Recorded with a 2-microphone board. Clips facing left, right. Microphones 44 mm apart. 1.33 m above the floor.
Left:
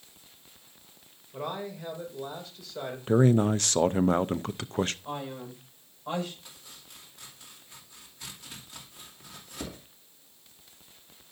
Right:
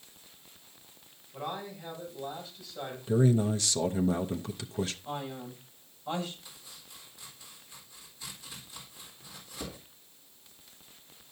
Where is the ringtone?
I don't hear a ringtone.